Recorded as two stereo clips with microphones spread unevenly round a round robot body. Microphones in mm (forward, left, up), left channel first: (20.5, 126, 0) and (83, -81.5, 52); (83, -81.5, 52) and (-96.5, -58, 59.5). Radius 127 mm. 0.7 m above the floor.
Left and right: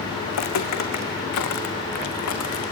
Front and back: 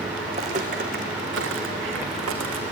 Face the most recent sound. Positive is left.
turn(degrees=150)